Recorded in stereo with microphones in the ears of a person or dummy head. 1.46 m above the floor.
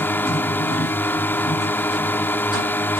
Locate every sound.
0.0 s a drone: 10° left (ahead or behind)